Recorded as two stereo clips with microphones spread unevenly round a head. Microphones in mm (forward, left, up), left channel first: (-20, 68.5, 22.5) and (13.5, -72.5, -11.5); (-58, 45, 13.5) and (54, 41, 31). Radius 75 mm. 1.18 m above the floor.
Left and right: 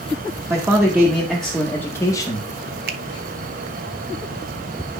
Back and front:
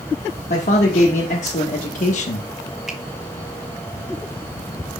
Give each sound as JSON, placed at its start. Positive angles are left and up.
{"t": 0.5, "sound": "a man speaking", "azimuth_deg": -150, "distance_m": 1.9}
{"t": 2.9, "sound": "a finger snap", "azimuth_deg": -90, "distance_m": 1.2}